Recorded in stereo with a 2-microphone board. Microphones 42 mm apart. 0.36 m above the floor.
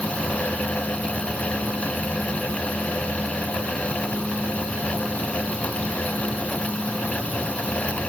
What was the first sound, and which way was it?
Only background noise.